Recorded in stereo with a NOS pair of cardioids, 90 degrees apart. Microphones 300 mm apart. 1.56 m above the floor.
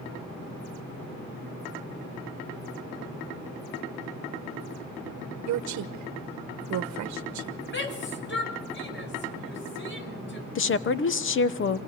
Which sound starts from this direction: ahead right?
A woman speaking, at 5.5 s.